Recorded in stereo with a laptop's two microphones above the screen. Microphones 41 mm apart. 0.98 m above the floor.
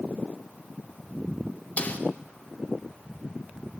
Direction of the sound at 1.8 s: 40° left (ahead or behind).